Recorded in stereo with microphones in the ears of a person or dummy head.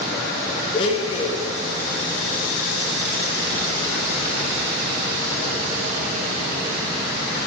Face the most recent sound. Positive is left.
turn(degrees=30)  # may be behind; listen again after turning